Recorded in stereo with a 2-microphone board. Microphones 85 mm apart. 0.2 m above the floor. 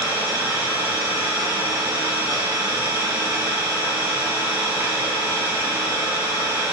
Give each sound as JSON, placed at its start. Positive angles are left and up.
{"t": 0.0, "sound": "an engine running", "side_deg": -50, "distance_m": 3.5}